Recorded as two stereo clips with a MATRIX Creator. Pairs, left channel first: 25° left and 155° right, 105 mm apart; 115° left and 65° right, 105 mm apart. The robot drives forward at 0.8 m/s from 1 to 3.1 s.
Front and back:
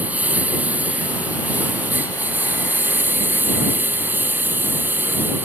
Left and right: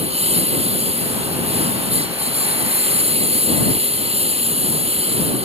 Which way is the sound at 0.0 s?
80° right.